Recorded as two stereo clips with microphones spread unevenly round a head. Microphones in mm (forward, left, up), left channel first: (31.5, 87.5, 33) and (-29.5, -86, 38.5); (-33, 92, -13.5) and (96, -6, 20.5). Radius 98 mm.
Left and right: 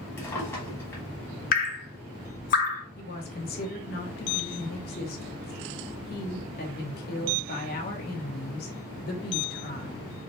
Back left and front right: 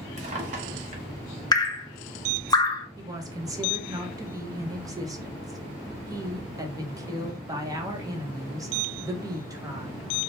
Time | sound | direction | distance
0.2 | a drawer | 5° right | 1.2 m
1.5 | dripping | 75° left | 0.7 m
3.0 | a woman speaking | 30° left | 1.0 m